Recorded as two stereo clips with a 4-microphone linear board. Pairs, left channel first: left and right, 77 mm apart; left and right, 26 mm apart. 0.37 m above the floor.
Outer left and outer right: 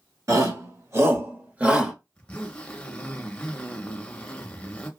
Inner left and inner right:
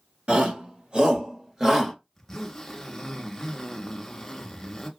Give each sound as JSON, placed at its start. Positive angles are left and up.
{"t": 0.3, "sound": "a shout", "side_deg": -50, "distance_m": 1.2}
{"t": 2.1, "sound": "a zipper", "side_deg": 15, "distance_m": 0.7}